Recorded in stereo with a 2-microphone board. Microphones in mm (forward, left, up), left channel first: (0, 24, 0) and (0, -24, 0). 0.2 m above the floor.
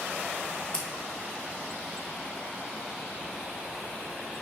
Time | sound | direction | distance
0.7 | scissors | 20° left (ahead or behind) | 0.7 m